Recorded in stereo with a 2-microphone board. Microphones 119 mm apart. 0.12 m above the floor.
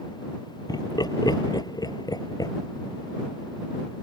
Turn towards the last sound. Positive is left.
turn(degrees=35)  # may be behind; listen again after turning